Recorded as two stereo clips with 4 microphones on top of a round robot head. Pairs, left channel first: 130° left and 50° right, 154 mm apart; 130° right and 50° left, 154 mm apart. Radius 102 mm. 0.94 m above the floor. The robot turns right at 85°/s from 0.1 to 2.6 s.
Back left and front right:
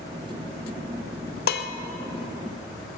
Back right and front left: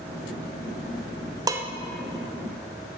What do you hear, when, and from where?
1.5 s dishes clattering: 115° left, 0.8 m; by 1.7 s 135° left, 0.8 m